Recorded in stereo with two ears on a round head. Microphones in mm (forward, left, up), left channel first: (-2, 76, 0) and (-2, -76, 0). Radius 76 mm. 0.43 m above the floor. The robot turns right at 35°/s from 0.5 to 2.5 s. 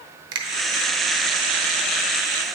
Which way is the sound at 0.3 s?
25° right (ahead or behind).